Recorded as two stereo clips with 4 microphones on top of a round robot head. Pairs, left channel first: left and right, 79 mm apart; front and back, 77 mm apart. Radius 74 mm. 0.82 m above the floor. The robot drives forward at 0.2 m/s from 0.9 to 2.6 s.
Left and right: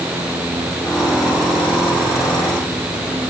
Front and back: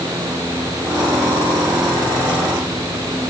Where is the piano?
I don't hear a piano.